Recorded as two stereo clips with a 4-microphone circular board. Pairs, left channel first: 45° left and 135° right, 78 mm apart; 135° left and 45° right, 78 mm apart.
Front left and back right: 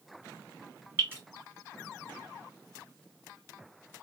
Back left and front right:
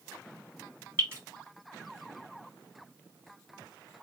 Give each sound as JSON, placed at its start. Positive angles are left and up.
{"t": 1.0, "sound": "dripping", "azimuth_deg": -85, "distance_m": 2.0}